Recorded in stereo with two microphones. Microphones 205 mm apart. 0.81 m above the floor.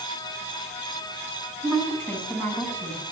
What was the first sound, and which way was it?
A woman speaking, 10° left (ahead or behind).